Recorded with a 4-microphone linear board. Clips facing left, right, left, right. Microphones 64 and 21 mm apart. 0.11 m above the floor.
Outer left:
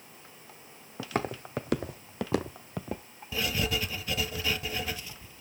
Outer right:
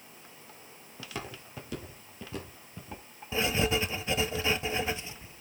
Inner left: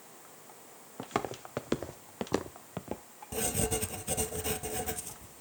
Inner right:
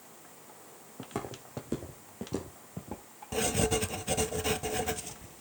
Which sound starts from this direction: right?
Writing, at 3.3 s.